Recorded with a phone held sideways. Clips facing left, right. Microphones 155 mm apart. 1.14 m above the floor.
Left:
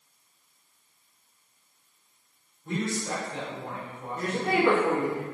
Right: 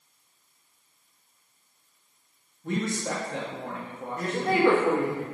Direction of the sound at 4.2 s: 15° left (ahead or behind).